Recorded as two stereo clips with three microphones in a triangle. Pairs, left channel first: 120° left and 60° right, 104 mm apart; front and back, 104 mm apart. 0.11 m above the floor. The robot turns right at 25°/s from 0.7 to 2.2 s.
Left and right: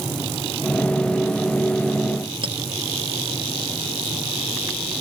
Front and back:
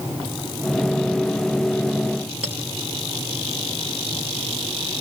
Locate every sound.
2.4 s a clink: 95° right, 2.5 m